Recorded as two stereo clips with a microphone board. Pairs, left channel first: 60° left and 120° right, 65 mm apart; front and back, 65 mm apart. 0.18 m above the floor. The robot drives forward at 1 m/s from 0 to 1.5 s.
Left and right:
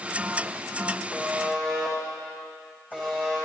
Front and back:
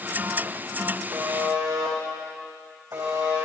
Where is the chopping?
I don't hear chopping.